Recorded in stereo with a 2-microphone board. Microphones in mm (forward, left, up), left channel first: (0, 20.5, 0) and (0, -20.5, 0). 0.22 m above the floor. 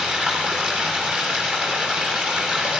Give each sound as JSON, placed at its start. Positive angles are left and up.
{"t": 0.0, "sound": "running water", "side_deg": -30, "distance_m": 8.0}